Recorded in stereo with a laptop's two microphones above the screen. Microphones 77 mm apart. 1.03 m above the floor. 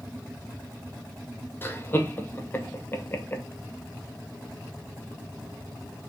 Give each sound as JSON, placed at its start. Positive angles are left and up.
{"t": 1.6, "sound": "laughter", "side_deg": 30, "distance_m": 0.9}